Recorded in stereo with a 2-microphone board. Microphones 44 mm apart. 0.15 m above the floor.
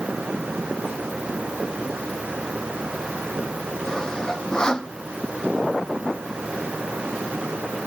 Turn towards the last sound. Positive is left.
turn(degrees=15)  # may be behind; listen again after turning